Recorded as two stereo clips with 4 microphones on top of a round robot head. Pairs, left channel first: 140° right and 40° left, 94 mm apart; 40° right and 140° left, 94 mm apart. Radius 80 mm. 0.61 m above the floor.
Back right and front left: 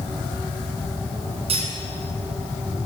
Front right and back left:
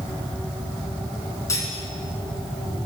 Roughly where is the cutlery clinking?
Ahead.